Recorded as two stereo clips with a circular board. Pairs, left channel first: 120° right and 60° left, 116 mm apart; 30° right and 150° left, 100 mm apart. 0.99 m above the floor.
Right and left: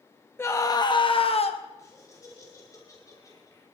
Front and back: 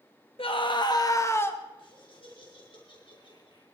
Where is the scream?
50° right, 0.9 m; by 1.6 s 100° right, 1.2 m.